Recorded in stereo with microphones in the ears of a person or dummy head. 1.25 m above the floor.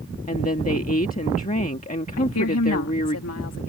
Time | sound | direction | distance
0.3 | a woman speaking | 35° left (ahead or behind) | ?
2.2 | a woman speaking | 80° left | ?